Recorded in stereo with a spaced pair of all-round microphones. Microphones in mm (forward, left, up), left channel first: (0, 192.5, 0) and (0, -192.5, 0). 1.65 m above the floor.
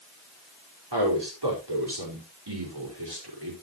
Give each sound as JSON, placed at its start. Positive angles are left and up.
{"t": 0.9, "sound": "a man speaking", "side_deg": -85, "distance_m": 5.0}